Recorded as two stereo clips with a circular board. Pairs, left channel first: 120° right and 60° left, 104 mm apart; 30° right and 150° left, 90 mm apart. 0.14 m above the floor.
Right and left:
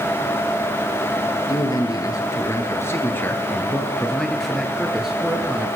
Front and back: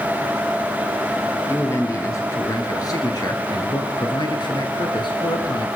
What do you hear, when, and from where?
1.5 s a man speaking: 80° right, 2.5 m; by 5.7 s 15° right, 2.5 m